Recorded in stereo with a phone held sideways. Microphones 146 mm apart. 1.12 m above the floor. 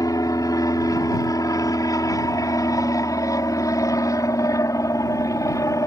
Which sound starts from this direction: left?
An aircraft, at 0.0 s.